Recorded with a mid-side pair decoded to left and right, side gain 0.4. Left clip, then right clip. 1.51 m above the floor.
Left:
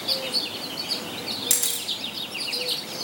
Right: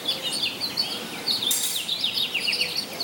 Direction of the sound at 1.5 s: 60° left.